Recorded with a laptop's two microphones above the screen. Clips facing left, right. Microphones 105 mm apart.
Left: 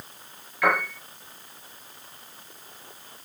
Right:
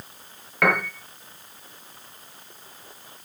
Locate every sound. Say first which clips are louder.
0.6 s a piano: right 1 dB; 65° right (ahead or behind), 6.5 m